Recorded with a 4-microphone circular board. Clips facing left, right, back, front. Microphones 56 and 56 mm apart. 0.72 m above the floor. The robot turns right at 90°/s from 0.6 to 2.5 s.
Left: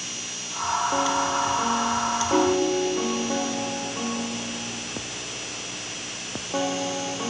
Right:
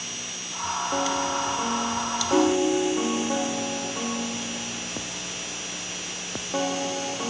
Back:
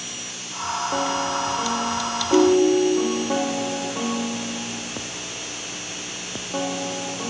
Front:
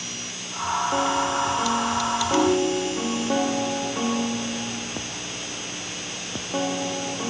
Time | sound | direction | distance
2.3 | a ringtone | 175° left | 6 m